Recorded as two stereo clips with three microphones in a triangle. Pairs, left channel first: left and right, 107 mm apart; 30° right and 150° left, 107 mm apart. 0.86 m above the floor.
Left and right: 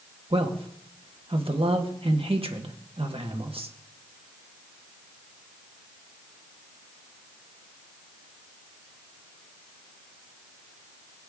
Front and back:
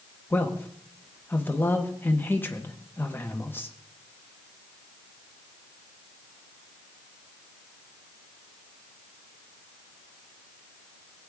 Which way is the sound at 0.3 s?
100° right.